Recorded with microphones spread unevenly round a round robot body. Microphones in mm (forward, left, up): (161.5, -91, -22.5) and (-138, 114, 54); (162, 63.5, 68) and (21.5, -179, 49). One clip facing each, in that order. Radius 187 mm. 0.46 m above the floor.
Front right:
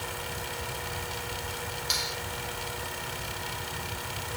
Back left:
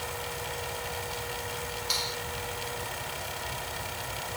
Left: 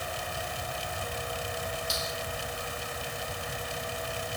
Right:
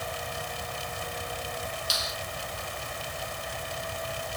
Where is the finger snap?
100° right.